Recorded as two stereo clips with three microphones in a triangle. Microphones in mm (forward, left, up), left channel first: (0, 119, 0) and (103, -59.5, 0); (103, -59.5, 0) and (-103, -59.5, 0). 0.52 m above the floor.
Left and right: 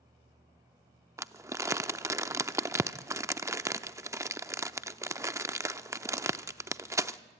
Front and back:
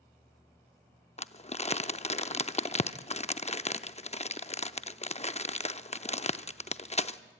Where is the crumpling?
5° left, 0.6 m.